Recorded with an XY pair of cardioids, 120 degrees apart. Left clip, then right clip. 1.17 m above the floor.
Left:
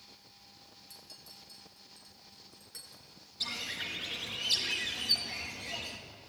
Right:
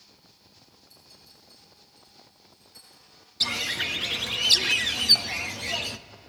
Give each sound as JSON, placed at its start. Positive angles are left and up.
{"t": 0.9, "sound": "a clink", "azimuth_deg": 55, "distance_m": 8.0}
{"t": 3.4, "sound": "a bird", "azimuth_deg": -60, "distance_m": 1.0}